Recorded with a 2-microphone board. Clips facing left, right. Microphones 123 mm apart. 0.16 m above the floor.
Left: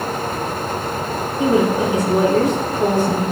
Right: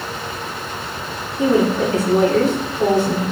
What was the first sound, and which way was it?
A woman speaking, 15° left (ahead or behind).